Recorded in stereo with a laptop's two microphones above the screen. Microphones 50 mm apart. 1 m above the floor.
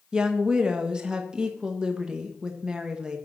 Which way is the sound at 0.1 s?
15° right (ahead or behind).